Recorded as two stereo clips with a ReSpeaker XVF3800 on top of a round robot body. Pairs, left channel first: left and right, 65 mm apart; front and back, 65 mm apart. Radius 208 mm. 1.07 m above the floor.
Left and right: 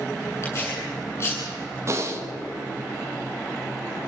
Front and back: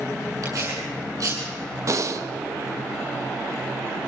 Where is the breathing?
140° right, 1.3 m.